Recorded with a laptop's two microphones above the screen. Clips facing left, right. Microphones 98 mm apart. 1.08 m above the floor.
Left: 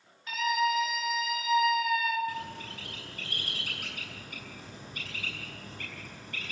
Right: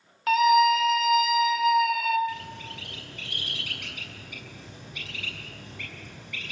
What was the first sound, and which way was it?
A scream, 80° right.